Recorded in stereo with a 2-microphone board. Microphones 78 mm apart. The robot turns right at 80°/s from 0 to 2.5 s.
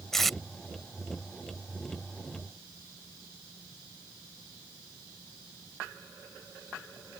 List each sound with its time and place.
0.1 s tape being pulled: 5° left (ahead or behind); by 0.4 s centre (ahead or behind)